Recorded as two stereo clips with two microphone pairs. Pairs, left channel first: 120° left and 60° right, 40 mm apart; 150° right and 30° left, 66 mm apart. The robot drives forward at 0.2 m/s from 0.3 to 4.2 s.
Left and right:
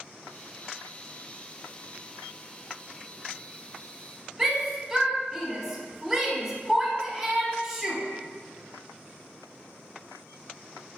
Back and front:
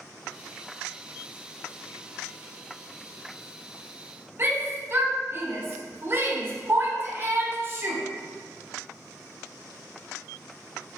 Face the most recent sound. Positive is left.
turn(degrees=20)